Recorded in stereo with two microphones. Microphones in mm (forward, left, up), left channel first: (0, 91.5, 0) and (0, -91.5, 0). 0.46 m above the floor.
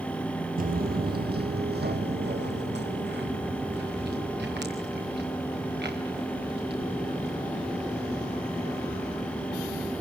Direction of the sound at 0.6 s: 55° right (ahead or behind).